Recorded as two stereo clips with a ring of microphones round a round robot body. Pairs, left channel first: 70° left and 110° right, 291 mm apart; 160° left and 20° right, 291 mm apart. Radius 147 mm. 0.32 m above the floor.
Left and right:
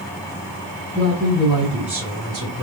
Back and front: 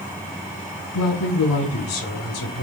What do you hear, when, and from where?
0.9 s a man speaking: 150° left, 2.5 m; by 2.6 s straight behind, 2.5 m